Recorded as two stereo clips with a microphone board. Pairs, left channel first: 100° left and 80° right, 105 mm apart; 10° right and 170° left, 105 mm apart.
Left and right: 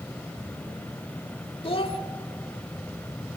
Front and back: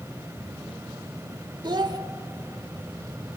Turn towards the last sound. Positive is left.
turn(degrees=125)